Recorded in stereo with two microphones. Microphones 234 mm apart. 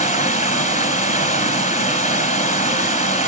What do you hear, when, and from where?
0.0 s running water: 30° left (ahead or behind), 1.7 m